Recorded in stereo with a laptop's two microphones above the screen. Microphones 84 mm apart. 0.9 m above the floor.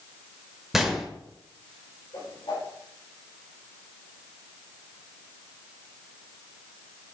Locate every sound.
0.7 s a gunshot: 5° right (ahead or behind), 1.1 m
2.1 s a whoosh: 80° left, 4 m